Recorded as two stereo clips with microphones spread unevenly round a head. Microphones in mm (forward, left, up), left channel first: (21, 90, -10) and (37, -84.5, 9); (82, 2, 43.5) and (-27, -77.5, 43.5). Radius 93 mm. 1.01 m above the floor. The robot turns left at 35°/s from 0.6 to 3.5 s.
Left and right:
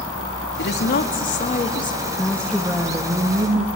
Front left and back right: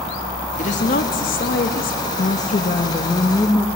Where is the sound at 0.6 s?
80° left, 1.8 m; by 2.1 s 25° left, 1.8 m.